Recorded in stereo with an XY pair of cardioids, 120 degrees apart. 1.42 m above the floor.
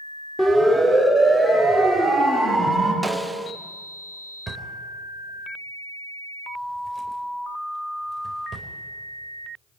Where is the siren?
5° left, 6.5 m; by 2.9 s 5° right, 8.5 m.